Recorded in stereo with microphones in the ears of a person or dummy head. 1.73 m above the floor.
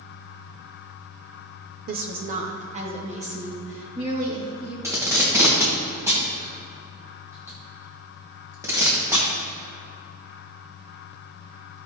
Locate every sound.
1.9 s a woman speaking: 45° right (ahead or behind), 0.7 m; by 4.7 s 30° right (ahead or behind), 3.5 m
4.8 s tape being pulled: 10° right (ahead or behind), 1.7 m